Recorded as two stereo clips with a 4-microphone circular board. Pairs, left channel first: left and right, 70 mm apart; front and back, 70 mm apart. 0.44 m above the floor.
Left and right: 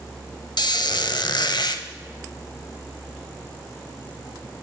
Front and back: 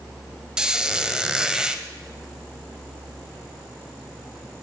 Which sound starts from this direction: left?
A squeak, at 0.6 s.